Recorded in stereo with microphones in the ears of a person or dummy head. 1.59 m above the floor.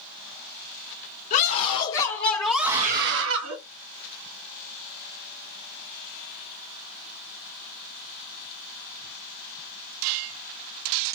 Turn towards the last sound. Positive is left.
turn(degrees=-85)